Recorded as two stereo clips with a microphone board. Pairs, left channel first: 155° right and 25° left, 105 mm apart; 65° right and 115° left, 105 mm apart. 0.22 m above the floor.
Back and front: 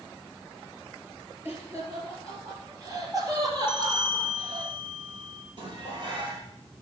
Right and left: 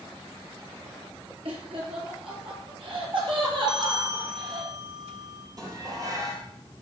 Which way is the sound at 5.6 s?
60° left.